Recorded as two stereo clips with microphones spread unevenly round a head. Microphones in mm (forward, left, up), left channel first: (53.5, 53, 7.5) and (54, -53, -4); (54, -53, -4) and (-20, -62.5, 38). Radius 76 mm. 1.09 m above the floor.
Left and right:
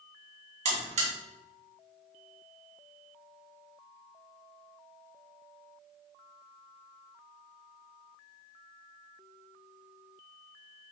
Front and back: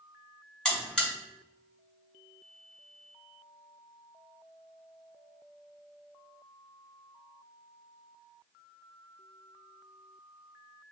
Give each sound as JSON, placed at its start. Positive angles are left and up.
{"t": 0.7, "sound": "a buzzer", "azimuth_deg": -85, "distance_m": 2.0}